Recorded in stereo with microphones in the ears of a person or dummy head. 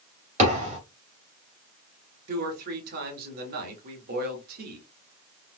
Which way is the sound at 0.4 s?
35° right (ahead or behind).